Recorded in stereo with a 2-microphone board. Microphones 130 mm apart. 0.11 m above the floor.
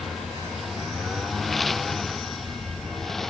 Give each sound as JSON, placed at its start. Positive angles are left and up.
{"t": 0.0, "sound": "a lawn mower", "side_deg": 0}